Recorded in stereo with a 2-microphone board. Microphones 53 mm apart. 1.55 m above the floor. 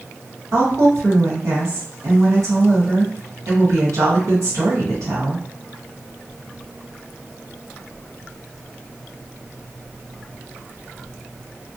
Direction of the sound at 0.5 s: 85° right.